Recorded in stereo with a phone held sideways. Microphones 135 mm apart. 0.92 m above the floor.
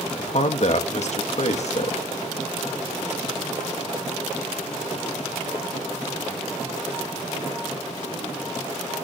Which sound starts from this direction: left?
A man speaking, at 0.2 s.